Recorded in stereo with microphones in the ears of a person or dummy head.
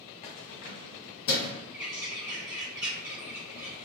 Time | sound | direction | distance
0.2 | keys jangling | 30° left (ahead or behind) | 0.5 m
1.7 | a bird | 15° right (ahead or behind) | 0.8 m